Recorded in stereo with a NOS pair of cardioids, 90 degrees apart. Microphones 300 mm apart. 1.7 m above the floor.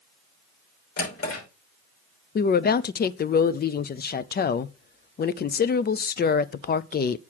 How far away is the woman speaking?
About 0.6 m.